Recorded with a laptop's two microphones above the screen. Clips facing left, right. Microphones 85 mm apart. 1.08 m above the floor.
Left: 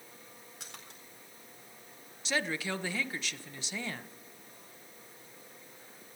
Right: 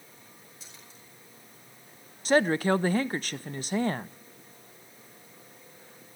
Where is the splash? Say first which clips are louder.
Left 2 dB; 70° left (ahead or behind), 4 m.